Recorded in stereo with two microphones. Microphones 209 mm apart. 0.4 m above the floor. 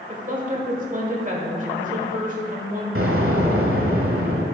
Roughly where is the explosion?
Right.